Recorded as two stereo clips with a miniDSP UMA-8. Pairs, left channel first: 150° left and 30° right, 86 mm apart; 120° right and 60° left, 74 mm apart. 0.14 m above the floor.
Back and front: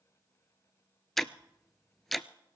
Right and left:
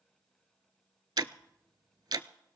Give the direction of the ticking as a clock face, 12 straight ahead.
10 o'clock.